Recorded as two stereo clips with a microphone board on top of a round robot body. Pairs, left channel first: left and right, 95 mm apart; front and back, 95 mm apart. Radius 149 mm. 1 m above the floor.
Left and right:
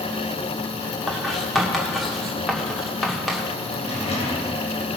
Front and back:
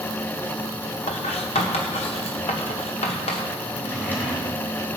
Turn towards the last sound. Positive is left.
turn(degrees=75)